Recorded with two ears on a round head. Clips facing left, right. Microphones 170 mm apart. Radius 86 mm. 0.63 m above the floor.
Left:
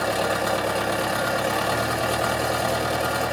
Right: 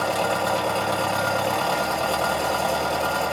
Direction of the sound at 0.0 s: 20° left (ahead or behind).